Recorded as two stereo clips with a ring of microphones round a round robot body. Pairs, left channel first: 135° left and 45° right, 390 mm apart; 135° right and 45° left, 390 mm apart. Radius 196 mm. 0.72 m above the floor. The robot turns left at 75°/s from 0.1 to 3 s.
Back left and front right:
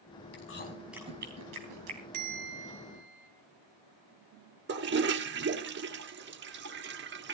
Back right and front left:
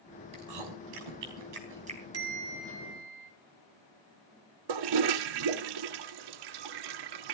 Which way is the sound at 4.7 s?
20° left.